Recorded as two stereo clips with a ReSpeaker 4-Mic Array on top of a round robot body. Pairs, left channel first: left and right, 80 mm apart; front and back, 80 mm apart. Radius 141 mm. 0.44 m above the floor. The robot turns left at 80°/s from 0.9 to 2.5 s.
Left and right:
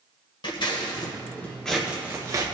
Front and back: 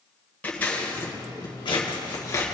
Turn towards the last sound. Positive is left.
turn(degrees=-55)